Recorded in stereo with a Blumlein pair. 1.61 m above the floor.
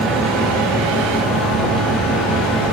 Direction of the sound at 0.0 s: 10° right.